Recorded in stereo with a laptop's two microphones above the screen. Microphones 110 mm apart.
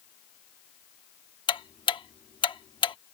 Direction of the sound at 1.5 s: 50° left (ahead or behind).